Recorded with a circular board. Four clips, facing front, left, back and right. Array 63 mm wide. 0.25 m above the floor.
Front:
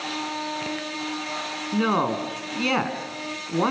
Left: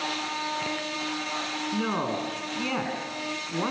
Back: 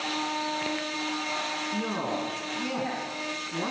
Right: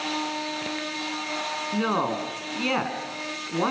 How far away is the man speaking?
About 3.5 m.